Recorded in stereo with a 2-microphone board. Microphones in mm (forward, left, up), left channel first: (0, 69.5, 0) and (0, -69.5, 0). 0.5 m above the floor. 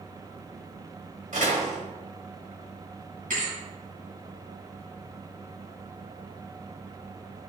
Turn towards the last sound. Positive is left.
turn(degrees=-80)